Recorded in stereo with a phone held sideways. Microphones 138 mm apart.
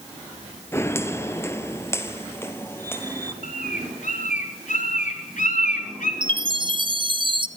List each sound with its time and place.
0.7 s footsteps: 20° left (ahead or behind), 1.4 m; by 3.3 s 15° left (ahead or behind), 2 m
3.4 s a bird: 70° left (ahead or behind), 4.5 m
6.2 s a chime: 35° right (ahead or behind), 1.0 m